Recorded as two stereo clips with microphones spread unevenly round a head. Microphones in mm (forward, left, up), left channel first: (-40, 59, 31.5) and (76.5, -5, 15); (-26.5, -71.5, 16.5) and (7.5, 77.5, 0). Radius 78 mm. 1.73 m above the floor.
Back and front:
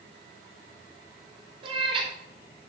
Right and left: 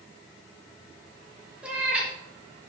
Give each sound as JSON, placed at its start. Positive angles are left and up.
{"t": 1.6, "sound": "a cat meowing", "azimuth_deg": -10, "distance_m": 1.1}